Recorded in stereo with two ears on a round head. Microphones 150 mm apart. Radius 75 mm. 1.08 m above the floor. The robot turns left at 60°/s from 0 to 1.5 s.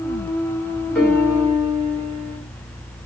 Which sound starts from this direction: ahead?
A piano, at 0.9 s.